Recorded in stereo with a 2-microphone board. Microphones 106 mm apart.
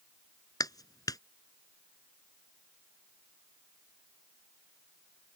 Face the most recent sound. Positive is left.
turn(degrees=40)  # may be behind; listen again after turning